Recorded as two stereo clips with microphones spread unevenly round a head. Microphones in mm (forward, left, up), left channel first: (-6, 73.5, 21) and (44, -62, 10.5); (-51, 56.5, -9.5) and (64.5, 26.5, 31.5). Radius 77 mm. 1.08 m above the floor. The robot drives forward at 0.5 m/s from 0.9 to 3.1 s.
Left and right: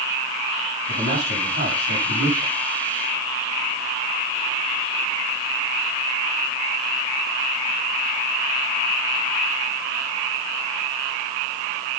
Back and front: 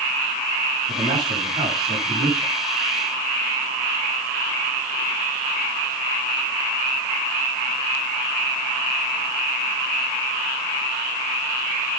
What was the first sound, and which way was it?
A man speaking, 50° right.